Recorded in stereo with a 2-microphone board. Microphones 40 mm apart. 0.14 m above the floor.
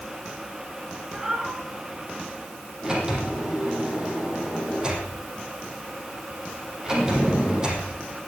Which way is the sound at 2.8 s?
20° right (ahead or behind).